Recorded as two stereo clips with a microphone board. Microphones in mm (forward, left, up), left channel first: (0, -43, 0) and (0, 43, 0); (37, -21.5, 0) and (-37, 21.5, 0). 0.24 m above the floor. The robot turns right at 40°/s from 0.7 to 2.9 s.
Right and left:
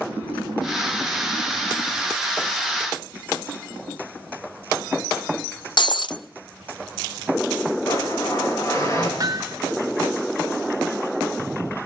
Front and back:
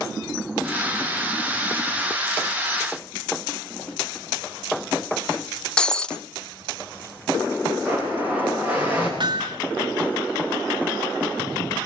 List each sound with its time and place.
5.8 s breaking glass: 110° right, 0.6 m
7.8 s a blender: 140° right, 7 m
9.2 s hammering: 130° left, 1.9 m